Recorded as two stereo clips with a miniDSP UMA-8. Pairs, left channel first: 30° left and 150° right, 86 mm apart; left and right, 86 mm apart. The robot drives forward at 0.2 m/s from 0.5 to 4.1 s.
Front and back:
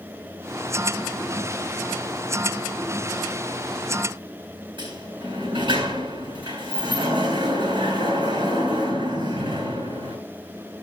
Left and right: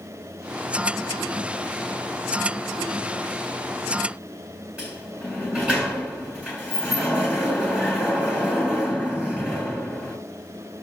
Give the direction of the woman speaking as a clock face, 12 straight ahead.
I don't hear a woman speaking.